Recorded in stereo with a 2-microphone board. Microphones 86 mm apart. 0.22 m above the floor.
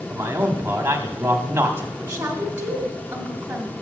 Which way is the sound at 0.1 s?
30° right (ahead or behind).